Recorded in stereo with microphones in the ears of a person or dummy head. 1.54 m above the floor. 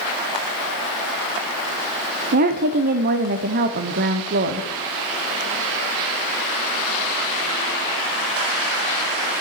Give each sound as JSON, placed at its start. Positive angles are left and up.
{"t": 2.3, "sound": "a woman speaking", "side_deg": -45, "distance_m": 0.5}